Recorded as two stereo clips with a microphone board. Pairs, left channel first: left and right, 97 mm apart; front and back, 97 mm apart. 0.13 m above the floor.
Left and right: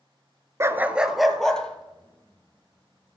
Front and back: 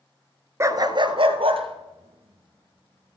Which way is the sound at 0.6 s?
135° right.